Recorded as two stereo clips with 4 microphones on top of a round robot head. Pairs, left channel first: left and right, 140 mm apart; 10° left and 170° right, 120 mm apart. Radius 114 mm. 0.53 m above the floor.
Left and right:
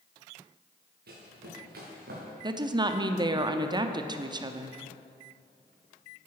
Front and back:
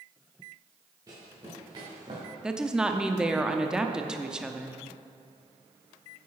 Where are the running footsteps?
100° right, 3 m; by 2.3 s 110° right, 3 m.